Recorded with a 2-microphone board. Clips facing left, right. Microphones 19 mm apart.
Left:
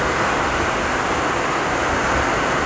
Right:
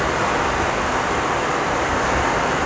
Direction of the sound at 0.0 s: 70° left (ahead or behind).